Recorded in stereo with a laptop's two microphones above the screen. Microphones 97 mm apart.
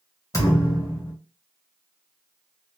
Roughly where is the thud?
Left.